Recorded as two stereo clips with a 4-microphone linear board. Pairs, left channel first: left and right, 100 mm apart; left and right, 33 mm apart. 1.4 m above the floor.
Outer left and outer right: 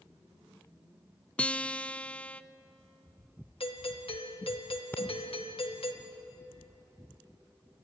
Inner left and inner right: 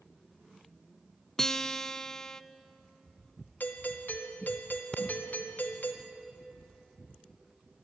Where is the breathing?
20° left (ahead or behind), 1.8 m.